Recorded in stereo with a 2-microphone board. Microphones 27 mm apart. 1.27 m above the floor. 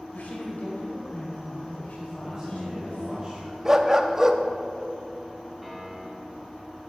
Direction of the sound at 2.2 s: 30° right (ahead or behind).